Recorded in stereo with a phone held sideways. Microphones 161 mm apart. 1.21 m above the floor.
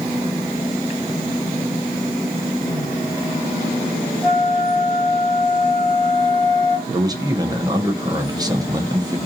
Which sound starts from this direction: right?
A man speaking, at 6.9 s.